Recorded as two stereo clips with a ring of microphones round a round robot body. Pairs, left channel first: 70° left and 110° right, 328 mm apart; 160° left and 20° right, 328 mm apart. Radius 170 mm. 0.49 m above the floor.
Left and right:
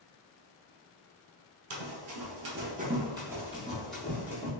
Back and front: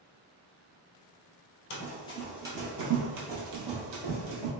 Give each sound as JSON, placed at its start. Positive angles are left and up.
{"t": 1.7, "sound": "running footsteps", "azimuth_deg": -155, "distance_m": 0.7}